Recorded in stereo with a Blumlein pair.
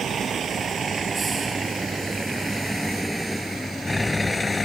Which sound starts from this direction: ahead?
A vehicle, at 0.0 s.